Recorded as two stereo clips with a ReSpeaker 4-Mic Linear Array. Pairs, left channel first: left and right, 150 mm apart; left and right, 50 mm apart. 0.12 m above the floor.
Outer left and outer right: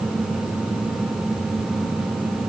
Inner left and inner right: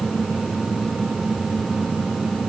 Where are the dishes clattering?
No dishes clattering in this recording.